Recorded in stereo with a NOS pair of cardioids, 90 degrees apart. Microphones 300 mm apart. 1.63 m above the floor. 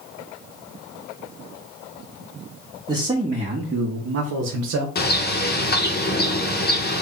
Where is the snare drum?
No snare drum in this recording.